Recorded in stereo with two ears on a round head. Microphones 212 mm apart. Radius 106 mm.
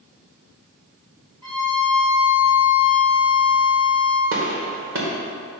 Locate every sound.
1.4 s a violin: 20° right (ahead or behind), 2.5 m
4.3 s a gunshot: 55° right (ahead or behind), 1.8 m